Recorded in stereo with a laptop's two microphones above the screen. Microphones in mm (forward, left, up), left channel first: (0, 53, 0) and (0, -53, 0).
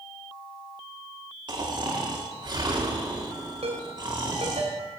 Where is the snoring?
45° right (ahead or behind), 1.8 m.